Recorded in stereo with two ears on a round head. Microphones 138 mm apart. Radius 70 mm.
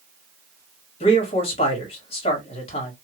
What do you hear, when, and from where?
1.0 s a man speaking: 40° left (ahead or behind), 1.4 m